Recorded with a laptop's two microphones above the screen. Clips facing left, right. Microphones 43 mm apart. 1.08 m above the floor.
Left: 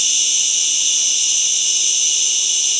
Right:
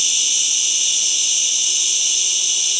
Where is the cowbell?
I don't hear a cowbell.